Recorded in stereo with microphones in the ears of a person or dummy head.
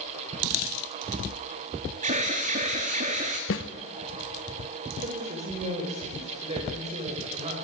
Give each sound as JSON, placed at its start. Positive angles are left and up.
{"t": 2.0, "sound": "an alarm", "side_deg": -40, "distance_m": 2.0}
{"t": 3.5, "sound": "a snare drum", "side_deg": 65, "distance_m": 1.4}
{"t": 5.0, "sound": "a woman speaking", "side_deg": -35, "distance_m": 5.0}